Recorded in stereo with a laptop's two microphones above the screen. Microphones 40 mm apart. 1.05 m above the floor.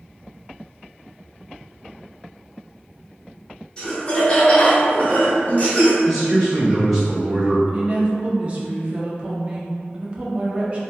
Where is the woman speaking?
30° right (ahead or behind), 0.6 m.